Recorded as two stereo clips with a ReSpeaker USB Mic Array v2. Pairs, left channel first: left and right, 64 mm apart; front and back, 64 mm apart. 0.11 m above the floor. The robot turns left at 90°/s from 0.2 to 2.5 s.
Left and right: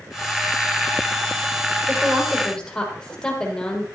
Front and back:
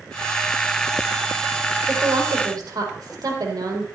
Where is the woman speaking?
135° right, 3.5 m; by 3.9 s 170° left, 3.5 m.